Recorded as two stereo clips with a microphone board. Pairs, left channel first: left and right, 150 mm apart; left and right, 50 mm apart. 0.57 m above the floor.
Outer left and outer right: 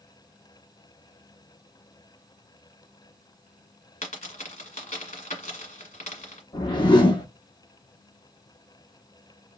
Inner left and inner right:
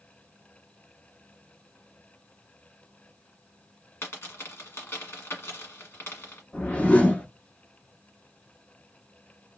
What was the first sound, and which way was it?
A dropped coin, 65° left (ahead or behind).